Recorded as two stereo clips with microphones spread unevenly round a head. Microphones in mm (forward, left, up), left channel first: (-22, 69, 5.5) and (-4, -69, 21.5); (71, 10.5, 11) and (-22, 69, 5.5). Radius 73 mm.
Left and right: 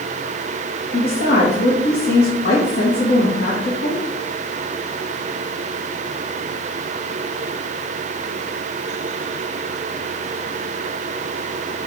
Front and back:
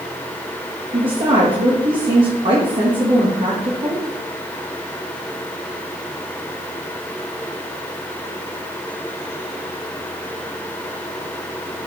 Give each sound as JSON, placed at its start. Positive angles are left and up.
{"t": 0.9, "sound": "a woman speaking", "azimuth_deg": 110, "distance_m": 1.9}